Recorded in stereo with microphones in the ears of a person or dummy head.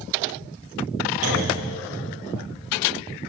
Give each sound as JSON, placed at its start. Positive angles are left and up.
{"t": 1.2, "sound": "a clunk", "side_deg": -45, "distance_m": 8.0}